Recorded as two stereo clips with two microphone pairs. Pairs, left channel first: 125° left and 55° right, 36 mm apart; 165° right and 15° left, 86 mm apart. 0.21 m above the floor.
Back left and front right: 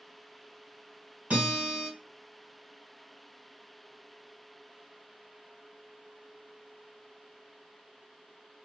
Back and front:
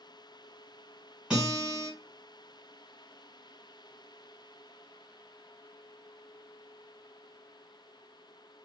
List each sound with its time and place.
1.3 s a guitar: 60° right, 1.4 m